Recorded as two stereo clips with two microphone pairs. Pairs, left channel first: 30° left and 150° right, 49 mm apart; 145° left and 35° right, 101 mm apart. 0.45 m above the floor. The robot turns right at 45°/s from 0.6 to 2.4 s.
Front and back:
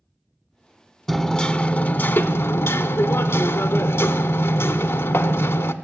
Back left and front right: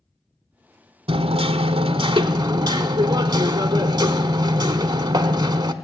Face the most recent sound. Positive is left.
turn(degrees=10)